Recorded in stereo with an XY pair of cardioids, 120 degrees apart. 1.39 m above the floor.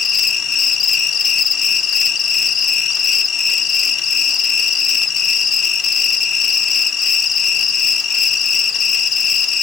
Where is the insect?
45° left, 1.1 m.